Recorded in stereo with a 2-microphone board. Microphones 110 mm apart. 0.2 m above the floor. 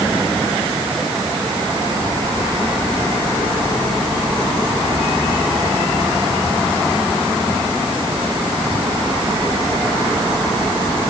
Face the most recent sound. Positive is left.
No sound to turn to.